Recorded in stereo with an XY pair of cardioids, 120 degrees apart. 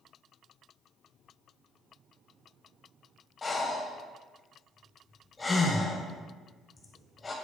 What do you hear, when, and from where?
3.4 s breathing: 25° left, 0.6 m